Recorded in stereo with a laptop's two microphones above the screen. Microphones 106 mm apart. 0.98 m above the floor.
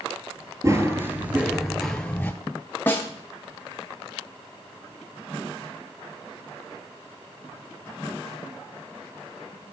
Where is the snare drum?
20° left (ahead or behind), 0.8 m.